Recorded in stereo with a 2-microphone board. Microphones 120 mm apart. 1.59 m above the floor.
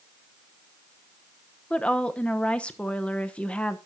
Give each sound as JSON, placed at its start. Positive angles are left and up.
{"t": 1.7, "sound": "a woman speaking", "side_deg": 10, "distance_m": 0.9}